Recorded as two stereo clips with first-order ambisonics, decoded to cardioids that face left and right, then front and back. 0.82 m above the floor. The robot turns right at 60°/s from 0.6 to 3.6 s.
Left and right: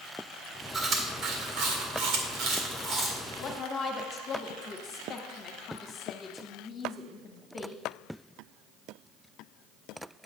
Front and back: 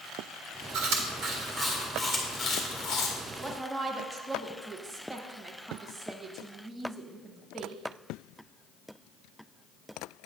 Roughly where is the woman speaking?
Left.